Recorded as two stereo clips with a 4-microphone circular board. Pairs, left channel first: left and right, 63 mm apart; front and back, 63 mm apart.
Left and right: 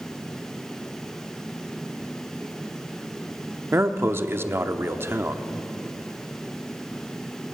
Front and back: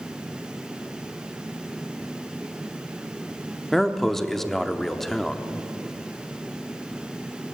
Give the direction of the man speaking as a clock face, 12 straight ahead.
3 o'clock.